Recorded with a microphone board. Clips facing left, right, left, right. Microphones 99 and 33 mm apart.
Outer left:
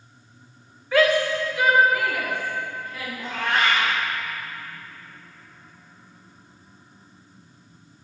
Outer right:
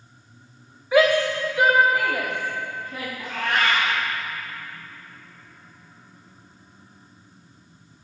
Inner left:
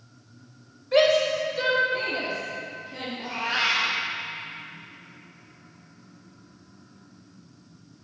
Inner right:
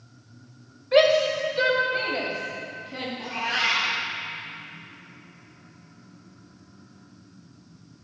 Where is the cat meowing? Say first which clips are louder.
Outer left 1 dB, even; 25° left (ahead or behind), 2.5 m.